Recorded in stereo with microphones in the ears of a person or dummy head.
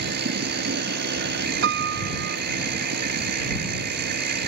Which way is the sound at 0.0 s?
55° right (ahead or behind).